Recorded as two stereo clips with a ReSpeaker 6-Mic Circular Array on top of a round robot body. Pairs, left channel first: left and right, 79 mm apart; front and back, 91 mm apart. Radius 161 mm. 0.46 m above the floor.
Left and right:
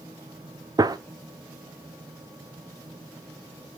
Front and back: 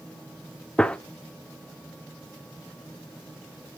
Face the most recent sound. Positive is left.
turn(degrees=-75)